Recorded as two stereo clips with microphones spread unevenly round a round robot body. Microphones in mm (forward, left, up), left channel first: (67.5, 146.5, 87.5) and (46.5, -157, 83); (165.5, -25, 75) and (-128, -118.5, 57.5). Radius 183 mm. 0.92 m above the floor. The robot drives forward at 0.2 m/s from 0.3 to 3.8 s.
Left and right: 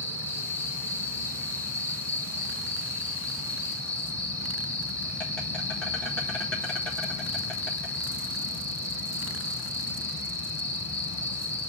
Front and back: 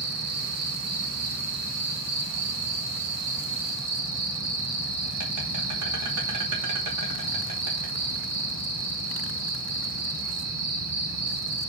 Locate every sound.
0.0 s an insect: 170° left, 1.9 m